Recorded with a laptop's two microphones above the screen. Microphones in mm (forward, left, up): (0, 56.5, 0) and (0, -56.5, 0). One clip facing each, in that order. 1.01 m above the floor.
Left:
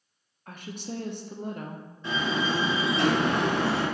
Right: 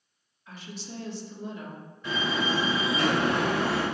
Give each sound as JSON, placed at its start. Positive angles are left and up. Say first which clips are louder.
{"t": 0.5, "sound": "a woman speaking", "louder": "left 4 dB", "side_deg": 50, "distance_m": 0.5}
{"t": 2.0, "sound": "a door slam", "louder": "left 1 dB", "side_deg": 25, "distance_m": 1.9}